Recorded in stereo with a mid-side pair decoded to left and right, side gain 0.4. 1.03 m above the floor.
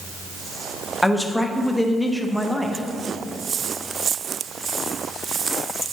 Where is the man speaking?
5° left, 0.8 m.